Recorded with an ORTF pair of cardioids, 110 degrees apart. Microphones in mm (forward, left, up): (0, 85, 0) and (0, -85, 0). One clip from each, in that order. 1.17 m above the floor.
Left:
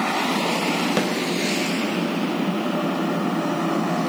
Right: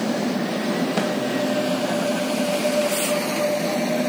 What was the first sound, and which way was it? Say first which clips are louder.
A snare drum: even; 60° left.